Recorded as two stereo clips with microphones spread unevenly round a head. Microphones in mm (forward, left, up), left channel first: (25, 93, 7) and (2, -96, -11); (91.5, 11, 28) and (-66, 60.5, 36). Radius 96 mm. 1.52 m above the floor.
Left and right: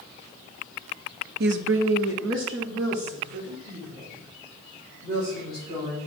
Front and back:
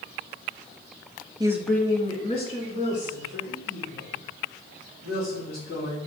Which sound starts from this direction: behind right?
A woman speaking, at 1.4 s.